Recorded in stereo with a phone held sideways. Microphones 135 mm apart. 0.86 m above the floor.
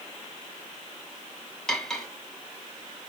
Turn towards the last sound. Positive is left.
turn(degrees=5)  # may be behind; listen again after turning